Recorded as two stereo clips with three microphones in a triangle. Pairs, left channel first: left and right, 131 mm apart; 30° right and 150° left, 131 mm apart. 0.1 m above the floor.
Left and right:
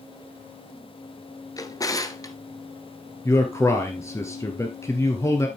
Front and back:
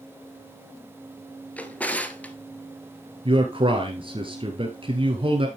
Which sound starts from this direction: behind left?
A man speaking, at 3.2 s.